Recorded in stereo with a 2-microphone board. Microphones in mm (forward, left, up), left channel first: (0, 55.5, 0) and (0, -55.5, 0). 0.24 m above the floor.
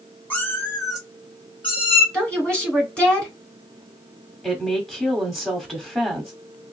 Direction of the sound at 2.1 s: 10° left (ahead or behind).